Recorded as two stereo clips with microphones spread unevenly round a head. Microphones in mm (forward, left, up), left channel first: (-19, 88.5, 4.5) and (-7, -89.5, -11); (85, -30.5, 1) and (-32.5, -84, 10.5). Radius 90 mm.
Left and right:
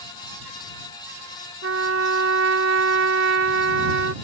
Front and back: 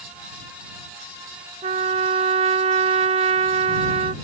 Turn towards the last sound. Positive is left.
turn(degrees=-115)